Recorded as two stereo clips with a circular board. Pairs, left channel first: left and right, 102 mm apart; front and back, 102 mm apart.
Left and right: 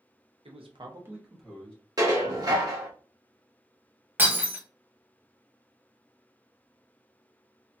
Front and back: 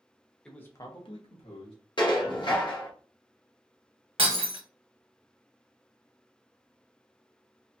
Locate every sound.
0.5 s a man speaking: 80° right, 0.9 m; by 1.8 s 15° left, 1.4 m
2.0 s dishes clattering: 40° right, 0.8 m
4.2 s breaking glass: 160° right, 0.9 m